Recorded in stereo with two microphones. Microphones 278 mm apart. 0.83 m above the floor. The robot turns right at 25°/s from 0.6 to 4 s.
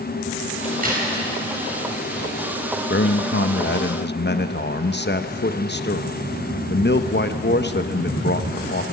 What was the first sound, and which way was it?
A crack, 25° right (ahead or behind).